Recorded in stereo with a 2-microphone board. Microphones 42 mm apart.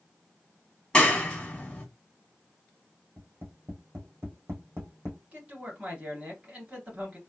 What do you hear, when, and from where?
0.9 s a clap: 20° left (ahead or behind), 1.5 m
3.2 s tapping: 75° right (ahead or behind), 1.9 m
5.3 s a man speaking: 30° right (ahead or behind), 2 m